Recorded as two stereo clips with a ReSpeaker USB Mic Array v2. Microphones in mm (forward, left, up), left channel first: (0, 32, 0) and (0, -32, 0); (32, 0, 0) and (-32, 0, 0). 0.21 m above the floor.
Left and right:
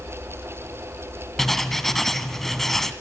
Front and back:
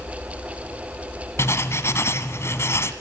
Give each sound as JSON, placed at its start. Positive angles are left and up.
{"t": 1.4, "sound": "writing", "azimuth_deg": 5, "distance_m": 1.5}